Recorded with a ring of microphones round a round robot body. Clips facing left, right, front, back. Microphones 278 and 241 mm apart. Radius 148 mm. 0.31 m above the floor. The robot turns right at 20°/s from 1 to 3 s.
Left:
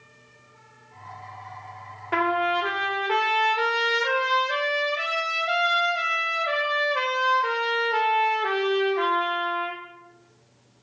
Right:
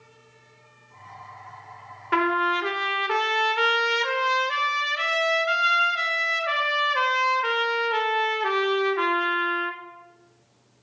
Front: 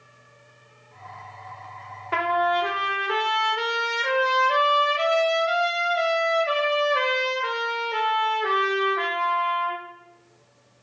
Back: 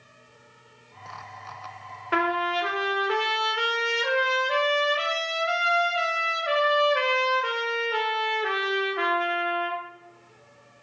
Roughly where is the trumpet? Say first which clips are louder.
Right 1 dB, front 1 dB; behind right.